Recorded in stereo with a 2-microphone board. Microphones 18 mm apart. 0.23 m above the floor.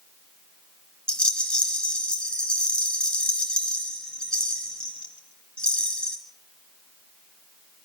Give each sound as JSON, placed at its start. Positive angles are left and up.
{"t": 1.1, "sound": "a rattle", "side_deg": 65, "distance_m": 3.5}